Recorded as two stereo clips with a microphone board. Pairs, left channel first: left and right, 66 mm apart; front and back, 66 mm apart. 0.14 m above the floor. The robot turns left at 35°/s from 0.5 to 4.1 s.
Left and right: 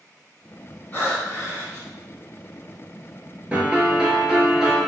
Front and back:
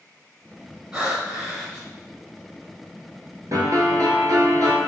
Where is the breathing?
110° left, 1.3 m; by 1.9 s 75° left, 1.3 m.